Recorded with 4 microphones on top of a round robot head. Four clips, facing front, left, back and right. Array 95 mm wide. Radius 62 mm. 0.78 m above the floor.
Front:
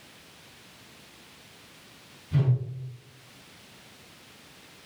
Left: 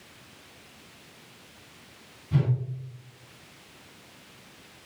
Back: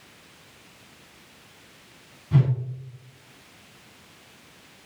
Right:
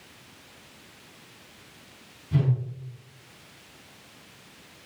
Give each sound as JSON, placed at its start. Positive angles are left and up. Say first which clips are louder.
{"t": 2.3, "sound": "a whoosh", "louder": "right 1 dB, back 4 dB", "azimuth_deg": 170, "distance_m": 3.0}